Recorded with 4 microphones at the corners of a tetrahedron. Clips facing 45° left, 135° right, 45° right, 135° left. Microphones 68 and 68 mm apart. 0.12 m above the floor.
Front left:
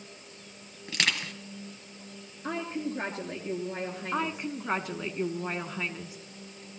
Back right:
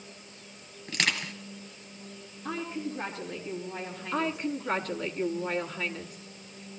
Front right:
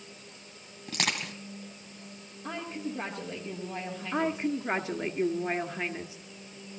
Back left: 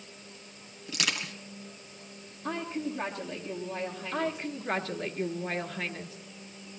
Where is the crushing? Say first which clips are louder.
Even, front right 1 dB; 40° right, 2.5 m.